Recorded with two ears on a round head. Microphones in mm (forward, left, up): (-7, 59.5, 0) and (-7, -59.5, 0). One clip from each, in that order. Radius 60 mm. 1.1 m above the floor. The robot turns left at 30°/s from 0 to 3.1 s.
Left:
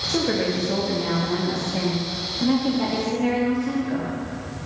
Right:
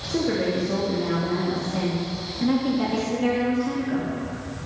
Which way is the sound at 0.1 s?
70° left.